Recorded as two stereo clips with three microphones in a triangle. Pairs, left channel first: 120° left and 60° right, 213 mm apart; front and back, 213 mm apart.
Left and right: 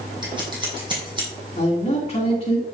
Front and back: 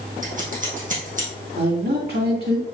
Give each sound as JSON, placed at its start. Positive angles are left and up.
{"t": 0.2, "sound": "scissors", "azimuth_deg": -130, "distance_m": 3.0}
{"t": 1.6, "sound": "a man speaking", "azimuth_deg": 170, "distance_m": 2.5}